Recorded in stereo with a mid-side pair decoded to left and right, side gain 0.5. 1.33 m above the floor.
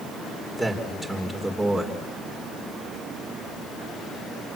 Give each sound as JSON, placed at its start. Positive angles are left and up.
{"t": 0.6, "sound": "a man speaking", "azimuth_deg": -5, "distance_m": 5.0}